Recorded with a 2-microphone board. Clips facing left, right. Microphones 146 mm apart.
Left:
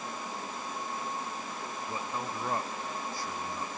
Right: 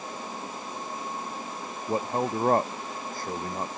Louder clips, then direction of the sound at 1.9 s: Right 11 dB; 55° right (ahead or behind).